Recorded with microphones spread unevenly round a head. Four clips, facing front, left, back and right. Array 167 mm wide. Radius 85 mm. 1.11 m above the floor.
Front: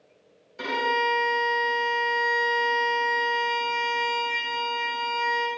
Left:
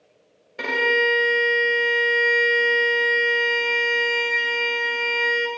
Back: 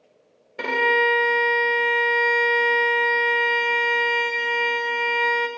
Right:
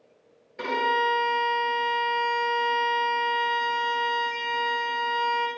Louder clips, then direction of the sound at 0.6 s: Left 2 dB, back 4 dB; 170° left.